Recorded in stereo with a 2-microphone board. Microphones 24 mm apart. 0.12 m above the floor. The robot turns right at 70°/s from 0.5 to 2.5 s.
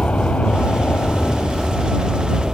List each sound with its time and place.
0.0 s an aircraft: 60° left; by 2.5 s 160° right